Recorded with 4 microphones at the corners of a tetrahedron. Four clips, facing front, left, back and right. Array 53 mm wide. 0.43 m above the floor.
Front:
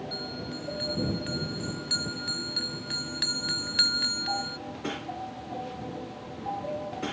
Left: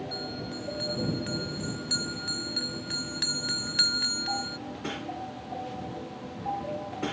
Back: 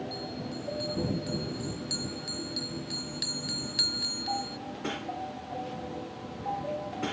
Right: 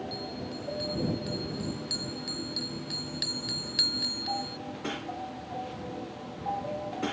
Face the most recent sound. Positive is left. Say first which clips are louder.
# left 1 dB, front 1 dB
turn(degrees=30)